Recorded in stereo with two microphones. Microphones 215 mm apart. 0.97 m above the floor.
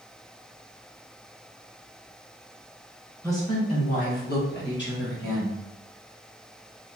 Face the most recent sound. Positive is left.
turn(degrees=60)  # may be behind; listen again after turning